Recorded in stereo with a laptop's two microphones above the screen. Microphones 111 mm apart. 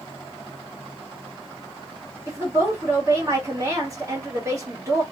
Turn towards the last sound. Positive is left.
turn(degrees=-30)  # may be behind; listen again after turning